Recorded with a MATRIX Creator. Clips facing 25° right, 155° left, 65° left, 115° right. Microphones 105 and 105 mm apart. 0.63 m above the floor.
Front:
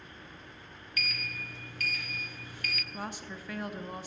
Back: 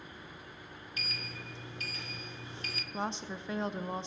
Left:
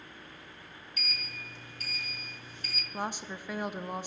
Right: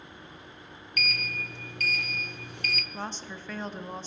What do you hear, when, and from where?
1.0 s a sliding door: 140° right, 0.8 m
2.9 s a woman speaking: 130° left, 0.6 m